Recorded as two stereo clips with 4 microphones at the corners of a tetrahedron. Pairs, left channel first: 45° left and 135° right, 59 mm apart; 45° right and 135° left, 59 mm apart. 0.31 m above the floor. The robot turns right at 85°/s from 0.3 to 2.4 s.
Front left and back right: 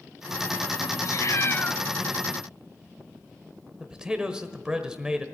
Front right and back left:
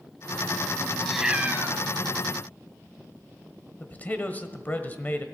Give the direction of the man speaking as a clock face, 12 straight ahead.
2 o'clock.